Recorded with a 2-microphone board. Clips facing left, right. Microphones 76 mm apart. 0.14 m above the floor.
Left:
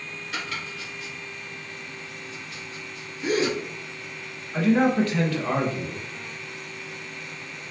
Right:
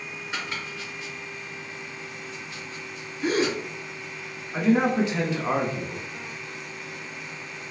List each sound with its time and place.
0.3 s chopping: 30° right (ahead or behind), 2.5 m
3.2 s a gasp: 40° right (ahead or behind), 1.2 m
4.5 s a man speaking: 15° right (ahead or behind), 1.1 m